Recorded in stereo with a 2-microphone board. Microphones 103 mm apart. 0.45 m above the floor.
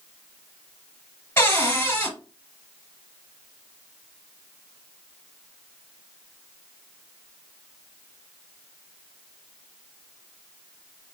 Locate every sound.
1.4 s a cupboard door: 25° left (ahead or behind), 1.5 m